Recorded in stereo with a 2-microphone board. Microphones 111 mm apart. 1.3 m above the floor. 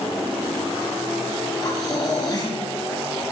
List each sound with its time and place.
1.6 s breathing: 35° left (ahead or behind), 8 m